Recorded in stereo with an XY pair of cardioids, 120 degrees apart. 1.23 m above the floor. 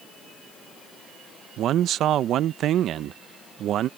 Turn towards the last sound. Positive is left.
turn(degrees=-65)